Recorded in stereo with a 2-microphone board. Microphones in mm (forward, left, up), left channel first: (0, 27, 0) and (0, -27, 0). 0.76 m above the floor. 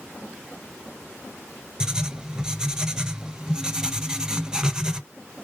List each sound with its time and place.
1.8 s writing: 15° right (ahead or behind), 0.6 m